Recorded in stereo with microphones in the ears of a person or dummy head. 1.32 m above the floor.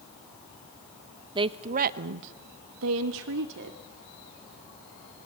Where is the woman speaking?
25° right (ahead or behind), 1.0 m; by 3.8 s 65° right (ahead or behind), 1.7 m.